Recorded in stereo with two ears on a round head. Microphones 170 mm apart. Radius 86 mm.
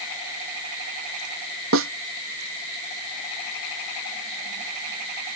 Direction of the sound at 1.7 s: 85° right.